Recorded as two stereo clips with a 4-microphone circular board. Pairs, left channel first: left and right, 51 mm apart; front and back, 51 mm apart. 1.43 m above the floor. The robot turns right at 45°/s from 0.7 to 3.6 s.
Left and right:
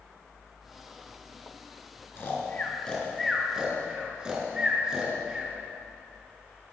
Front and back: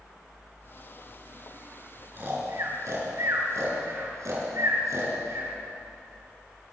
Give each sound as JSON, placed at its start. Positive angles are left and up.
{"t": 2.2, "sound": "snoring", "azimuth_deg": 130, "distance_m": 5.5}